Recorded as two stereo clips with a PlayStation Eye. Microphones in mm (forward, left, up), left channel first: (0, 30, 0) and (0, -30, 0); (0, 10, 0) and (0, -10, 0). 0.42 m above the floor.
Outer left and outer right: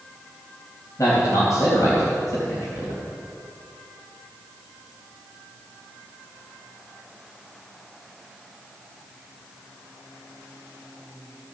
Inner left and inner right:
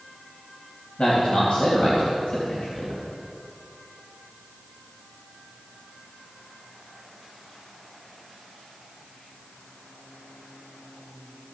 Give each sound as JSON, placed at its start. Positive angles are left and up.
{"t": 1.0, "sound": "a man speaking", "side_deg": 65, "distance_m": 2.5}